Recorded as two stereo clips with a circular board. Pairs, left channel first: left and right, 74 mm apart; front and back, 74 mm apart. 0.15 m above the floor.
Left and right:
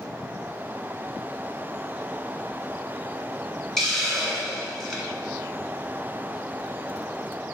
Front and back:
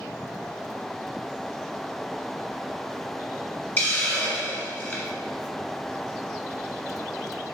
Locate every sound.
3.8 s a hiss: 15° left, 1.6 m